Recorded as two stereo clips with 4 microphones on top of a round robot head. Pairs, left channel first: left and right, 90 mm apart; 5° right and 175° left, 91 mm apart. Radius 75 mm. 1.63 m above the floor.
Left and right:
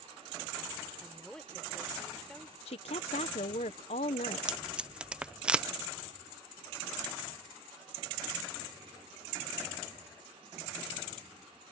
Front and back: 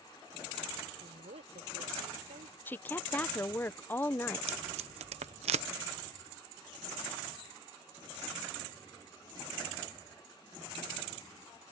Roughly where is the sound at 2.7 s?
Ahead left.